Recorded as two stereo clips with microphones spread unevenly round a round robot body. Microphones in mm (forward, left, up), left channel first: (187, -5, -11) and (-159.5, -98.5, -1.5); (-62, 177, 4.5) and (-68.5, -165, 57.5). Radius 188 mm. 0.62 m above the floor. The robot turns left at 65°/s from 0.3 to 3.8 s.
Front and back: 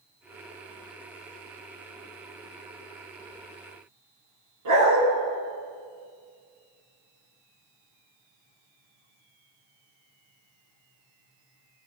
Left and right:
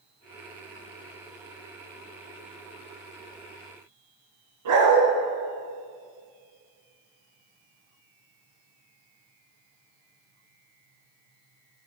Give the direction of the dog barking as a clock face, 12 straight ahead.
4 o'clock.